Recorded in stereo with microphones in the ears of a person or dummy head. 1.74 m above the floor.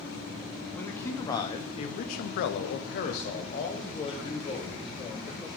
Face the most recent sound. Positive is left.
turn(degrees=25)  # may be behind; listen again after turning